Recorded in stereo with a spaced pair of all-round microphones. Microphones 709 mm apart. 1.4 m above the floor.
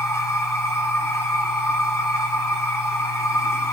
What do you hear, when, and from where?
0.0 s a machine running: 5° left (ahead or behind), 4 m